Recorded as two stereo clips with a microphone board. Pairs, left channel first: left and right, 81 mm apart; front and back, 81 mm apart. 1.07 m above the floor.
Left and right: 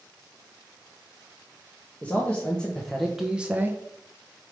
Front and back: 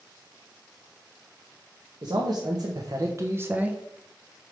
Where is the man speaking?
160° left, 1.5 m; by 3.8 s 115° right, 0.8 m.